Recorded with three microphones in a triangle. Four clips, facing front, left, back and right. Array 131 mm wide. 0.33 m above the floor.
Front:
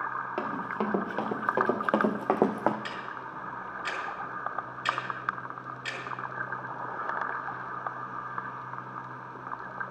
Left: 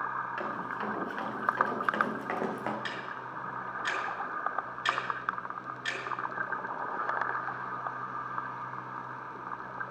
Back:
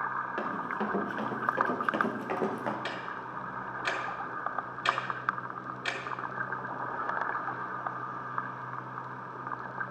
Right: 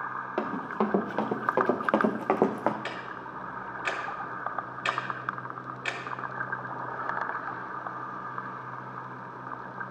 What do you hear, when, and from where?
0.4 s running footsteps: 65° right, 2.5 m; by 2.8 s 25° right, 1.3 m
2.9 s ticking: 130° right, 2.5 m